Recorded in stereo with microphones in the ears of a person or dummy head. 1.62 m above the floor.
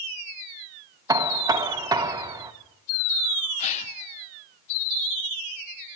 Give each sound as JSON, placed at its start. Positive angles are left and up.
{"t": 1.1, "sound": "knocking", "side_deg": -15, "distance_m": 1.0}
{"t": 3.6, "sound": "a gasp", "side_deg": 35, "distance_m": 1.4}